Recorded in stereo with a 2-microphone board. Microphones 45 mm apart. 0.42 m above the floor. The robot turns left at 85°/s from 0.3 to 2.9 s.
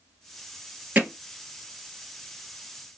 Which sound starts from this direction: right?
Hammering, at 0.9 s.